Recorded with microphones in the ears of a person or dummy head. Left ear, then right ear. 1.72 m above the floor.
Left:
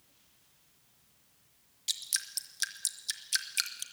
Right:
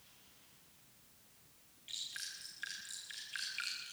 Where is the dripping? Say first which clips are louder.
Left 9 dB; 70° left (ahead or behind), 1.9 m.